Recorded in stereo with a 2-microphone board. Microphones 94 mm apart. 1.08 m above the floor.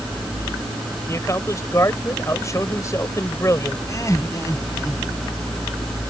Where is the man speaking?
35° left (ahead or behind).